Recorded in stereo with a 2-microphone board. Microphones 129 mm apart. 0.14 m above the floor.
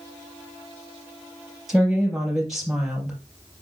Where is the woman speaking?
5° right (ahead or behind), 3.5 m.